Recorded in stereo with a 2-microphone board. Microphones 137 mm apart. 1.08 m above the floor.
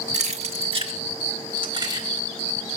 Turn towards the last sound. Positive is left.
turn(degrees=-30)  # may be behind; listen again after turning